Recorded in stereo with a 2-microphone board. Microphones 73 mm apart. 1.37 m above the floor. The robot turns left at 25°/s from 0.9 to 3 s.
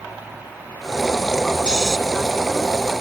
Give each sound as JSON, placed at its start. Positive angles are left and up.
{"t": 1.7, "sound": "snoring", "side_deg": -10}